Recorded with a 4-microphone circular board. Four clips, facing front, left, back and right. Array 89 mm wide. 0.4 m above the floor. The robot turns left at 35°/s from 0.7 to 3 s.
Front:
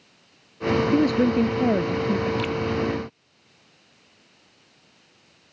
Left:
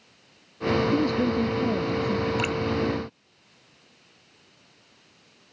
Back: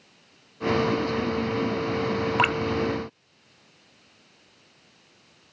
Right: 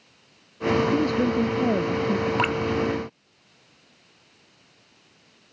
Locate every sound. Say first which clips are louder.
0.9 s a woman speaking: right 1 dB, front 6 dB; straight ahead; by 2.3 s 45° right
2.4 s dripping: right 3 dB, back 4 dB; 145° right; by 2.6 s 155° right